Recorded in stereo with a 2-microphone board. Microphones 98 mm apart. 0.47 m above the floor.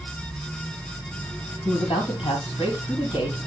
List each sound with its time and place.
1.6 s a man speaking: 65° left (ahead or behind), 3.5 m